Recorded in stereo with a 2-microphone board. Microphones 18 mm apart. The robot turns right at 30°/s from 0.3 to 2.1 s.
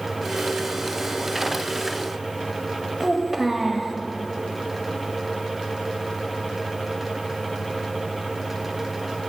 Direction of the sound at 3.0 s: 10° right (ahead or behind).